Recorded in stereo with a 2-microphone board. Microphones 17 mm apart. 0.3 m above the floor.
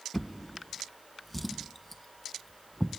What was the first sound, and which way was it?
A drawer, 5° left (ahead or behind).